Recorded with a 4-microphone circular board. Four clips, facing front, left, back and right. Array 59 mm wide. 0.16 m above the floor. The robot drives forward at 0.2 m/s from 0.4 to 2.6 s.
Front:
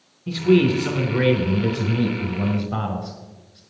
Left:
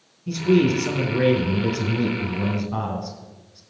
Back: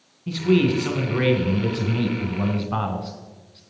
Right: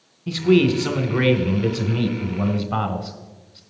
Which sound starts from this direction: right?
A man speaking, at 0.3 s.